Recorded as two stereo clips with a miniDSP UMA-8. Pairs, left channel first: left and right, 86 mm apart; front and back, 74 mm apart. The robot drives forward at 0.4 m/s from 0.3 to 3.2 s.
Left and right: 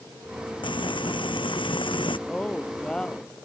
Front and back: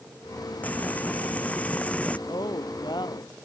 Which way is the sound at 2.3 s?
10° left.